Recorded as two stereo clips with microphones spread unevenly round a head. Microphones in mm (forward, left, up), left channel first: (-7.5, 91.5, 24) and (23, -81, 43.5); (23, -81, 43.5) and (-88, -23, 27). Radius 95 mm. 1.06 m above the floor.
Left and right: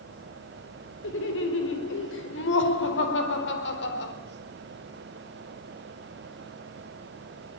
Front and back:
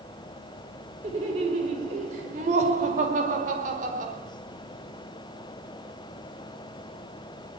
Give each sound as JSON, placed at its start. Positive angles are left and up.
{"t": 1.0, "sound": "laughter", "azimuth_deg": 100, "distance_m": 5.0}